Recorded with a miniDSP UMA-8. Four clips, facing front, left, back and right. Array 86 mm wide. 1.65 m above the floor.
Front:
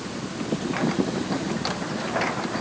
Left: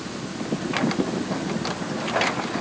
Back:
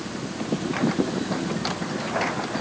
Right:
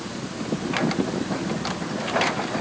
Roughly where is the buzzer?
I don't hear a buzzer.